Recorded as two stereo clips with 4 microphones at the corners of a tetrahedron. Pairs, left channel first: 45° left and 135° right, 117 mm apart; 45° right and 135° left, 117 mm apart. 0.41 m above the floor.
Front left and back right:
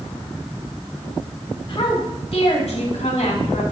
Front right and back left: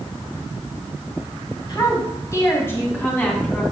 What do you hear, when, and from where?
1.7 s a woman speaking: 5° left, 2.5 m; by 3.6 s 35° left, 3 m